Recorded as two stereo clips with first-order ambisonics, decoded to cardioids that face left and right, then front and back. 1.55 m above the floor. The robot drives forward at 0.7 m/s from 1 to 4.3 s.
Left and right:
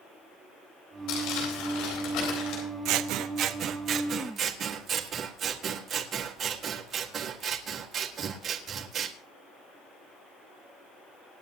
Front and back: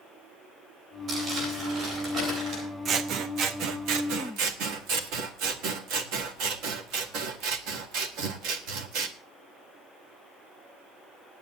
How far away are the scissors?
About 1.0 m.